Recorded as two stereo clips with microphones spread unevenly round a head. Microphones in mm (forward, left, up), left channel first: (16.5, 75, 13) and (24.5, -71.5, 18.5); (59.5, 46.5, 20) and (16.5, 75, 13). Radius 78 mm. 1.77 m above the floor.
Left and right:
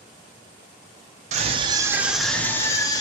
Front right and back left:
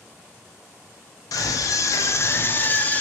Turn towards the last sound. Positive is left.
turn(degrees=30)